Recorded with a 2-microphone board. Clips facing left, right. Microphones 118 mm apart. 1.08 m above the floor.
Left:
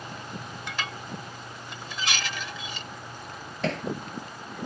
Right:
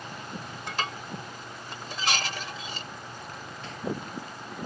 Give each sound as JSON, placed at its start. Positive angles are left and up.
{"t": 0.7, "sound": "dishes clattering", "side_deg": -40}
{"t": 3.6, "sound": "hammering", "side_deg": 85}